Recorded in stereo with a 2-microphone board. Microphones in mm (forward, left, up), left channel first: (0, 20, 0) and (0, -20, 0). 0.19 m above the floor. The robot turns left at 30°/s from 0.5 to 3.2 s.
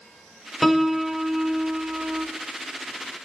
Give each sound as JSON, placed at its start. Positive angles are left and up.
{"t": 0.6, "sound": "a piano", "azimuth_deg": -5, "distance_m": 0.5}